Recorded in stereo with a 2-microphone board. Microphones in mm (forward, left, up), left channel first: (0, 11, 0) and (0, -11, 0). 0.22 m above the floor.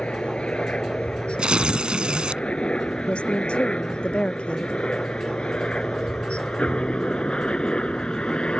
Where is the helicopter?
70° left (ahead or behind); by 8.6 s 55° left (ahead or behind).